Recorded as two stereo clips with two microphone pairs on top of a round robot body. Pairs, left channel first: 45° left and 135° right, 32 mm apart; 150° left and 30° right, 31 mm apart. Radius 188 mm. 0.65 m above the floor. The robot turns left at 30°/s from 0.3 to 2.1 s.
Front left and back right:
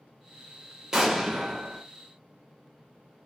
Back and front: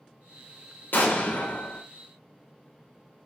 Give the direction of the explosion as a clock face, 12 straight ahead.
7 o'clock.